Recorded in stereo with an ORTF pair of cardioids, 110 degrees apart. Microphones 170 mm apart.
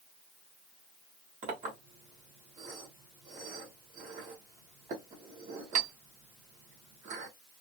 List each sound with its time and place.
1.4 s a clink: 50° right, 2.0 m